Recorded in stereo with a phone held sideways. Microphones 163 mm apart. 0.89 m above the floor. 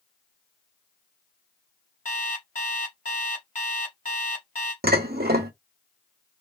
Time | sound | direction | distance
2.0 | an alarm clock | 55° left (ahead or behind) | 1.1 m
4.8 | dishes clattering | 70° right (ahead or behind) | 0.7 m